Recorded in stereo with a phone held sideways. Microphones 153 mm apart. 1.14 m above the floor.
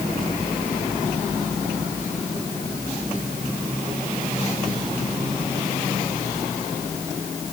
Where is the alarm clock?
No alarm clock in this recording.